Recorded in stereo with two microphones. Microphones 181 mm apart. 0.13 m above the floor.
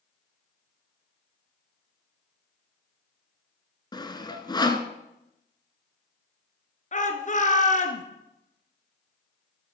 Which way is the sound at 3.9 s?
25° left (ahead or behind).